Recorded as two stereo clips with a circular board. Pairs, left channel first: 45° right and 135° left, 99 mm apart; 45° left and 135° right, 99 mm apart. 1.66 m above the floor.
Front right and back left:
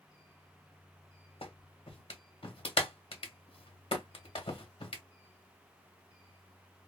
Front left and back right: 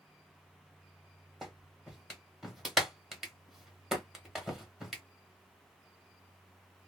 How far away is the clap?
About 1.1 m.